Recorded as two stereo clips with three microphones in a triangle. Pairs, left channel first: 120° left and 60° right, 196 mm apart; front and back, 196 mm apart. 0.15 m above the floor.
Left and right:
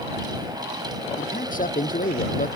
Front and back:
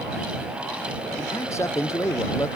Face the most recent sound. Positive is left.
turn(degrees=75)